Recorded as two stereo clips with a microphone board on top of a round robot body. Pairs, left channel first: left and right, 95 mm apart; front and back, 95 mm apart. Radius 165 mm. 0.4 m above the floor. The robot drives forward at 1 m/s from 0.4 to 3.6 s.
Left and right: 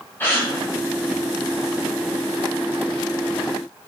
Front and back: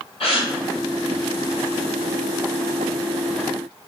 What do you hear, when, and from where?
0.2 s a gasp: 20° left, 1.2 m; by 0.5 s 25° left, 1.1 m